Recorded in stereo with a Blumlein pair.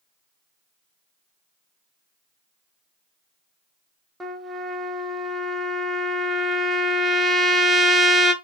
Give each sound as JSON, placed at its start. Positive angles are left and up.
{"t": 4.2, "sound": "a trumpet", "azimuth_deg": -10, "distance_m": 0.6}